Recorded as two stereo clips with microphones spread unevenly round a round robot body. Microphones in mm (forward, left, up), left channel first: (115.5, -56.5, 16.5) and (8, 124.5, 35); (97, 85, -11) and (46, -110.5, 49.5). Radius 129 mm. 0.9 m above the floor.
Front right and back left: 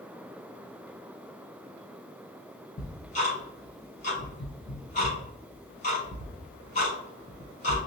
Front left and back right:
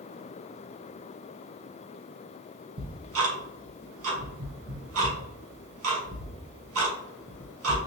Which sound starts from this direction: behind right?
Ticking, at 2.8 s.